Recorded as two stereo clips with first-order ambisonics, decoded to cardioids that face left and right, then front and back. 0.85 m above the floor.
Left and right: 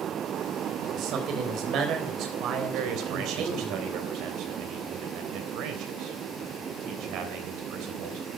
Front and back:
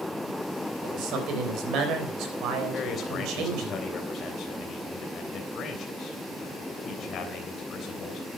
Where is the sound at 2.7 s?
60° right, 3.5 m.